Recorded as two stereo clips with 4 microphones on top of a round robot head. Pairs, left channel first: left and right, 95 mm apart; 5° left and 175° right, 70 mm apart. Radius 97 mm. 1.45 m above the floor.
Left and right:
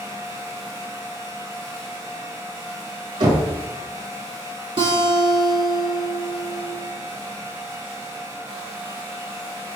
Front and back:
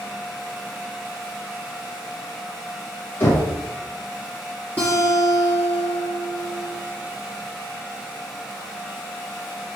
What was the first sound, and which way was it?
Knocking, 55° right.